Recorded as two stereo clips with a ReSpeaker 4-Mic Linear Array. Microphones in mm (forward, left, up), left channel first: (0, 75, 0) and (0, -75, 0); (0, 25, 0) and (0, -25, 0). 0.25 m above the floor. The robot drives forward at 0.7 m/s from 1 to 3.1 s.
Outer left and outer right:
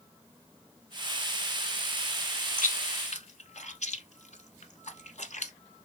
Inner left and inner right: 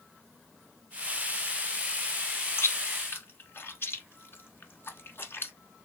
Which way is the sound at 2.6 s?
65° left (ahead or behind).